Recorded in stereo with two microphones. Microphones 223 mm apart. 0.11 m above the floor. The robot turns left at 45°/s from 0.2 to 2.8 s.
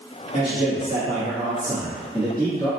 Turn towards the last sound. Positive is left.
turn(degrees=150)